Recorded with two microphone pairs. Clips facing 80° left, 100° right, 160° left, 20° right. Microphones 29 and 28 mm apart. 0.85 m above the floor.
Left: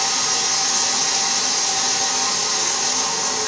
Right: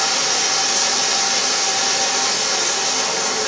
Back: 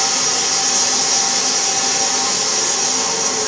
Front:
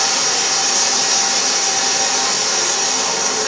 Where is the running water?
75° right, 2 m.